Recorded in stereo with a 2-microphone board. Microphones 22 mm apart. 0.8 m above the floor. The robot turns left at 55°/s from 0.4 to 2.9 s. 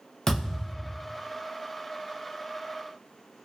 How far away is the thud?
About 0.7 m.